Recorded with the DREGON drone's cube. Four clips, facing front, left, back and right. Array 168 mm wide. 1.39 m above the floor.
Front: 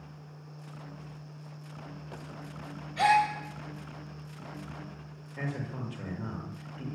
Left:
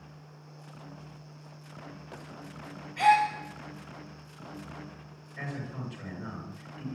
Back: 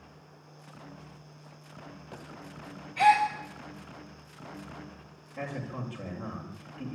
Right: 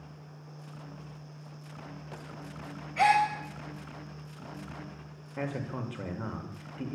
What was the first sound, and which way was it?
A gasp, 65° right.